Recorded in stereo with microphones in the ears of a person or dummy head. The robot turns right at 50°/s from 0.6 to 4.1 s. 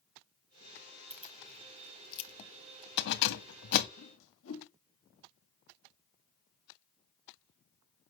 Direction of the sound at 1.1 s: 15° right (ahead or behind).